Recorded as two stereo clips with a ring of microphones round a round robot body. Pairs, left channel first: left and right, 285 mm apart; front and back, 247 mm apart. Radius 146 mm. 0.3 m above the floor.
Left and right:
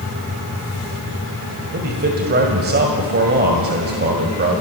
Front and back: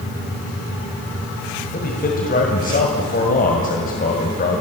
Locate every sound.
1.7 s a man speaking: 45° right, 2 m